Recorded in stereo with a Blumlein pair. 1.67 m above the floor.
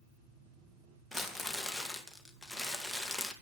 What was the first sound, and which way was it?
Crumpling, straight ahead.